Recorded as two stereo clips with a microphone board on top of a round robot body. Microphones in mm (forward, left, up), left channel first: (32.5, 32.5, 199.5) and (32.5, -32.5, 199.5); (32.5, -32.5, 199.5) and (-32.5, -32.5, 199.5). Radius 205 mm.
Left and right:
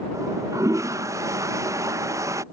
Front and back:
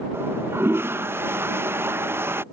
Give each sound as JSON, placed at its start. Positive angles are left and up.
{"t": 0.1, "sound": "a toilet flushing", "azimuth_deg": -130}